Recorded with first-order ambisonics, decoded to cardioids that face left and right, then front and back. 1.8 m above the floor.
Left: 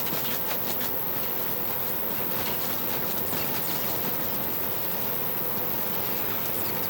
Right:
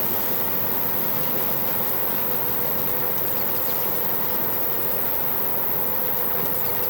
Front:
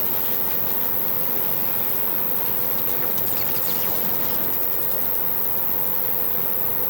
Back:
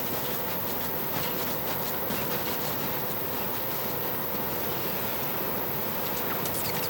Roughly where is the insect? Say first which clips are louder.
Right 3 dB, even; ahead.